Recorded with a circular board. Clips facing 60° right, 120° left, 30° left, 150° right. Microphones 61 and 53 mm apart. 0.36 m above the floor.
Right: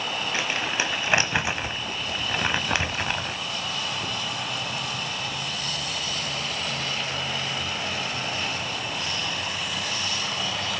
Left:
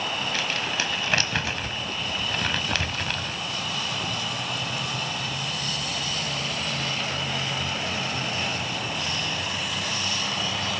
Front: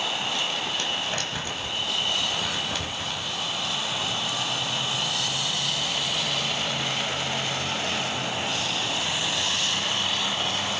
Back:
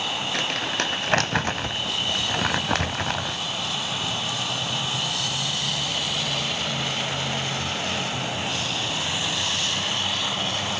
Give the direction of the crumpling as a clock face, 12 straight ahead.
4 o'clock.